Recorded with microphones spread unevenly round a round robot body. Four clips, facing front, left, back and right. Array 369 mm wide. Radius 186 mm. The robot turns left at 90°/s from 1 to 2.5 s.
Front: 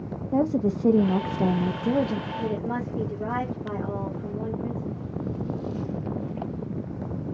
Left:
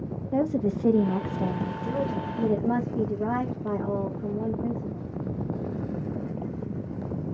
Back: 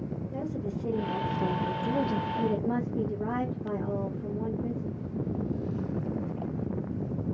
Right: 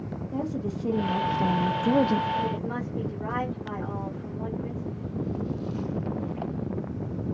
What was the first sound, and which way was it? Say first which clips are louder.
A woman speaking: left 6 dB, front 13 dB; 30° left.